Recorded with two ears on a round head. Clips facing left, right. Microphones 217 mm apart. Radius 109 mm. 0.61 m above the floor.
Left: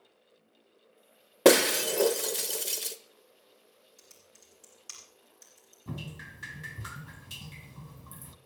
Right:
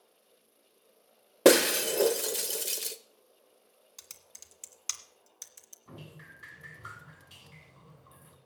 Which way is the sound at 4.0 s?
75° right (ahead or behind).